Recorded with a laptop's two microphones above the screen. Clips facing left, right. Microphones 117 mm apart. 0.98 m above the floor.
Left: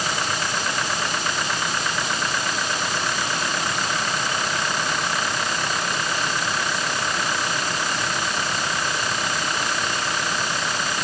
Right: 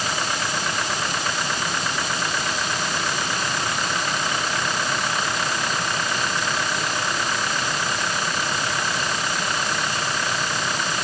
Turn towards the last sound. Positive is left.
No sound to turn to.